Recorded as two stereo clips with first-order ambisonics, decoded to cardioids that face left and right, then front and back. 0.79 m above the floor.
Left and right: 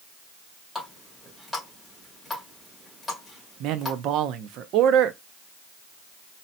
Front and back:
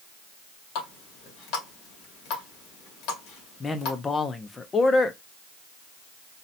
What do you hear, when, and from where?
0.8 s a running tap: 5° left, 2 m
3.6 s a man speaking: 70° right, 0.6 m